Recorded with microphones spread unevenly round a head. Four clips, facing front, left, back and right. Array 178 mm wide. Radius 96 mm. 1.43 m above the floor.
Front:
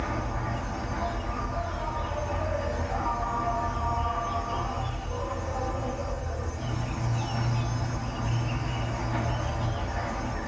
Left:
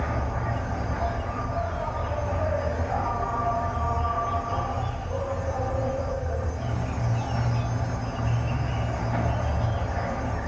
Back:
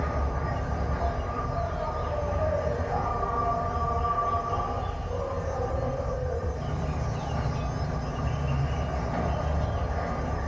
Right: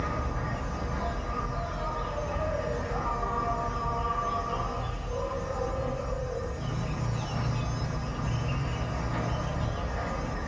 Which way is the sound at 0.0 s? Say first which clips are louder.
Left 3 dB, back 1 dB; 120° left.